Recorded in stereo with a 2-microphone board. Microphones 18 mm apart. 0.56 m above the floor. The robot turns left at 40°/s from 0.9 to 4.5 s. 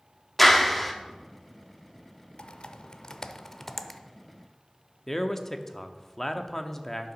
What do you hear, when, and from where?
0.4 s a clap: 10° left (ahead or behind), 1.1 m; by 0.9 s 5° left (ahead or behind), 1.1 m
2.4 s typing on a keyboard: 70° left (ahead or behind), 0.5 m; by 4.0 s 5° left (ahead or behind), 0.5 m
5.1 s a man speaking: 20° left (ahead or behind), 0.7 m